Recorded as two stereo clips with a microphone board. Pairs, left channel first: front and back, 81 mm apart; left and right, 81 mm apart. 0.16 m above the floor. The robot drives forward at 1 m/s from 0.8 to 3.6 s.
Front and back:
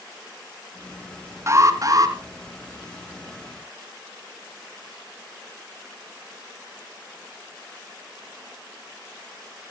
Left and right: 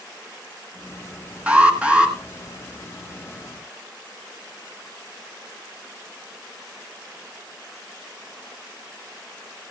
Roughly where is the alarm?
Behind right.